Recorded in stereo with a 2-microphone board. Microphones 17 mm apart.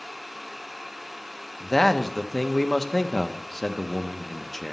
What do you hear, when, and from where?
1.6 s a man speaking: 10° left (ahead or behind), 0.6 m